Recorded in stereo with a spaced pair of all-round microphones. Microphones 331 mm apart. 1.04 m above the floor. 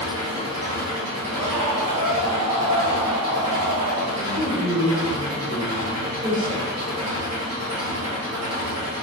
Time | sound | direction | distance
0.0 | an engine running | 50° right (ahead or behind) | 1.6 m
1.4 | a scream | 70° right (ahead or behind) | 0.8 m
4.2 | a man speaking | 10° left (ahead or behind) | 1.3 m